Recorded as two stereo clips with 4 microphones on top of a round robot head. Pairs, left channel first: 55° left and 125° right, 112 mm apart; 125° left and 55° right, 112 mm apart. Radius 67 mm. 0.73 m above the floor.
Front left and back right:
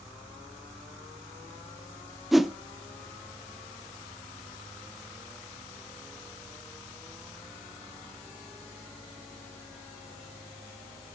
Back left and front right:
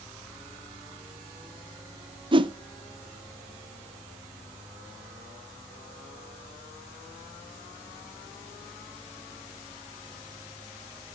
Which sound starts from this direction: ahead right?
A whoosh, at 2.3 s.